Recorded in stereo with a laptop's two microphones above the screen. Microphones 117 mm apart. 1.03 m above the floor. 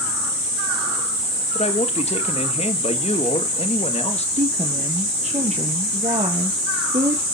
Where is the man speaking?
65° left (ahead or behind), 1.8 m.